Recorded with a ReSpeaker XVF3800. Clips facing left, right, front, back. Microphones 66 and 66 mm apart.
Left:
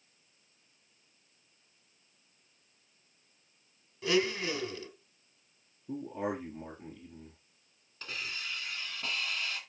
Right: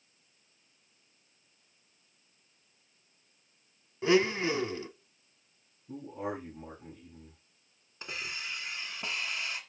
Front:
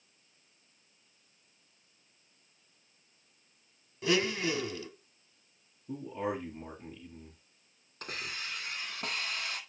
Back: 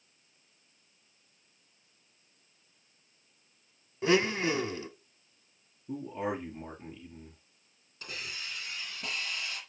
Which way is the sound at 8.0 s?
20° right.